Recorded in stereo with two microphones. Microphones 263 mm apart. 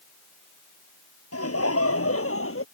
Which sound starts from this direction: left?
Laughter, at 1.3 s.